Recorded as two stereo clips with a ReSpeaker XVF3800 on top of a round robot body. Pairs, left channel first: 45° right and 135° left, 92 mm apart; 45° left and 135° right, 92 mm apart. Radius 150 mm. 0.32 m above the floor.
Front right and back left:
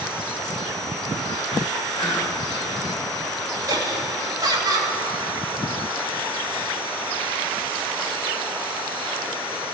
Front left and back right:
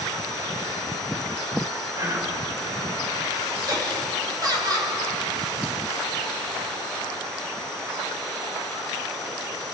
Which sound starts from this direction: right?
Whispering, at 1.9 s.